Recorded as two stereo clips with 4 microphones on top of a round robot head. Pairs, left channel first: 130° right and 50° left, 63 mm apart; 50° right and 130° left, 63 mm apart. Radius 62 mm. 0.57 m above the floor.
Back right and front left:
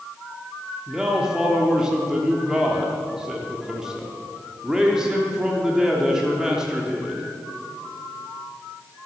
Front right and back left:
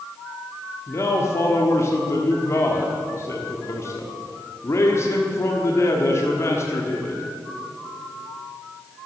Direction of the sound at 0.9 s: 25° right.